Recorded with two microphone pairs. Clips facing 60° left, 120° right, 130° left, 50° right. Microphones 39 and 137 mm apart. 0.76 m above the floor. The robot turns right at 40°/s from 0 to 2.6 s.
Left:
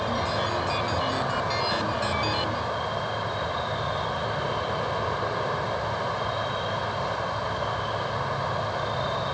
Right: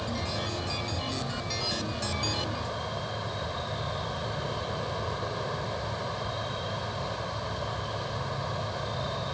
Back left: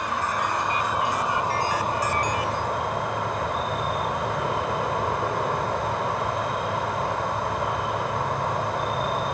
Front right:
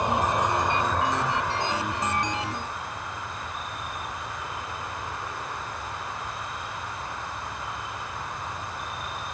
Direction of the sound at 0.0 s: 15° left.